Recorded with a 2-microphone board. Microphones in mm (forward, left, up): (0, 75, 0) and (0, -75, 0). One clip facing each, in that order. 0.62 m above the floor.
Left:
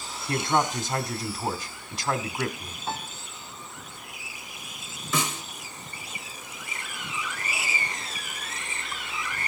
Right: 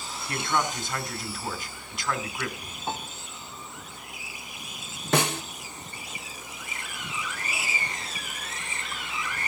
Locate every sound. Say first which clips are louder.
0.3 s a man speaking: left 3 dB; 40° left (ahead or behind), 1.8 m
2.9 s a piano: even; 20° right (ahead or behind), 1.7 m
5.1 s a snare drum: right 5 dB; 70° right (ahead or behind), 0.7 m